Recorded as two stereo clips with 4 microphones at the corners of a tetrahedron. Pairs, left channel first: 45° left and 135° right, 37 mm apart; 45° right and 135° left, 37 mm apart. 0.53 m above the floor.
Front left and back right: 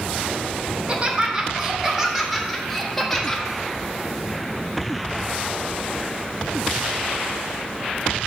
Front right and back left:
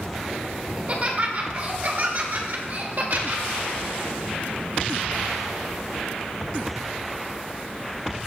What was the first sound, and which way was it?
Laughter, 175° left.